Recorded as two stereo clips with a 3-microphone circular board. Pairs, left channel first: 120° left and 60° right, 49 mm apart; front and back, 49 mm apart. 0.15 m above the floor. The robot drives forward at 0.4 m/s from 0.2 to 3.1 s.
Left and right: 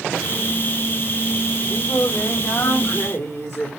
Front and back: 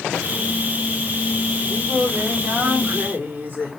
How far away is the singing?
About 4 m.